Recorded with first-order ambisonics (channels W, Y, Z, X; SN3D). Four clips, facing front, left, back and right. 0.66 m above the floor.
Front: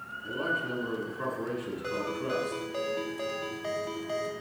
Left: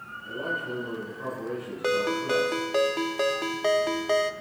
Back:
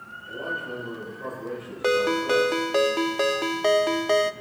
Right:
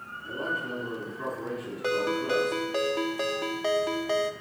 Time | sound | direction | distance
0.2 | a man speaking | 15° right | 7 m
1.8 | a ringtone | 165° left | 0.5 m